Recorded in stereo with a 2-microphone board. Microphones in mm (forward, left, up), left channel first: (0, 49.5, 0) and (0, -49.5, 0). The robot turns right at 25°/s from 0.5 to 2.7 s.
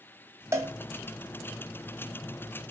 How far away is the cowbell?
About 1.9 m.